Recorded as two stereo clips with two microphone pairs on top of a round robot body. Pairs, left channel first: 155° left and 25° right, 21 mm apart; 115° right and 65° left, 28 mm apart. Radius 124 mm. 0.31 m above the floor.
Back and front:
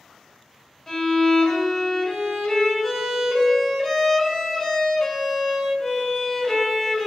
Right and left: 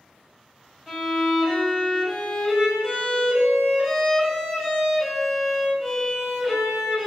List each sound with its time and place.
0.9 s a violin: 150° left, 1.9 m